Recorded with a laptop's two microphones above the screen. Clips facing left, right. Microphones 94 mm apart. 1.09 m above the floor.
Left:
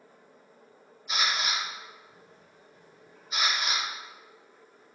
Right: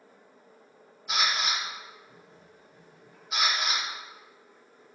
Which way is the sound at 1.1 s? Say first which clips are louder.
Right 1 dB; 70° right (ahead or behind).